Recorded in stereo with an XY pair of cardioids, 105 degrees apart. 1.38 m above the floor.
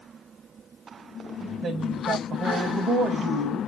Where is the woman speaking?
55° right, 1.0 m.